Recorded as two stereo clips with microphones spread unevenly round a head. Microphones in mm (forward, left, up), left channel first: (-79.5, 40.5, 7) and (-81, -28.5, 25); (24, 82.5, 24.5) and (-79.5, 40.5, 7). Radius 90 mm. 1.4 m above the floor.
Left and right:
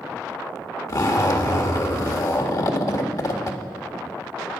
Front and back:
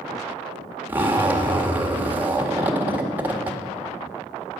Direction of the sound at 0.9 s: 125° left.